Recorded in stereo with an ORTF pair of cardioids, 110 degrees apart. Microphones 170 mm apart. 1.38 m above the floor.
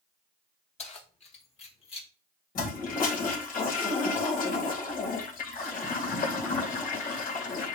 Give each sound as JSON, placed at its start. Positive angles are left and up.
{"t": 0.8, "sound": "keys jangling", "azimuth_deg": 40, "distance_m": 3.0}
{"t": 2.5, "sound": "a toilet flushing", "azimuth_deg": 60, "distance_m": 2.5}